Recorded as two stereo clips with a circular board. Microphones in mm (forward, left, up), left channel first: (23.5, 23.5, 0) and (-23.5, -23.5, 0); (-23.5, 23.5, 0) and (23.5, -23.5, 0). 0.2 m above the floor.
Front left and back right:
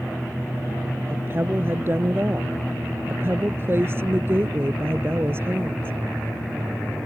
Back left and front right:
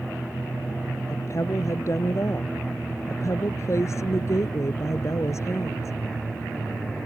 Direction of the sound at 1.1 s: 175° left.